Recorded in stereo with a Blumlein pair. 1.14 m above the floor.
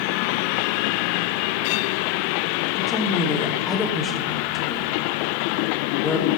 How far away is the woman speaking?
About 3 m.